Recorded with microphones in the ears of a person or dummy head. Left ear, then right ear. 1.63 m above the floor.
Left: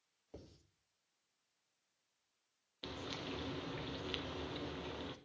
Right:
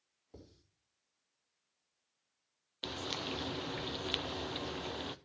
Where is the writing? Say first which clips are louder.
Left 1 dB; 30° left (ahead or behind), 4 m.